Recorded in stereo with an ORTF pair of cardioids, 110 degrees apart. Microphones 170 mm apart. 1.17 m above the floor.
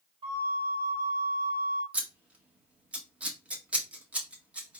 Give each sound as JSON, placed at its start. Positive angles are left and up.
{"t": 0.2, "sound": "a flute", "azimuth_deg": -30, "distance_m": 1.2}
{"t": 1.9, "sound": "scissors", "azimuth_deg": -5, "distance_m": 1.4}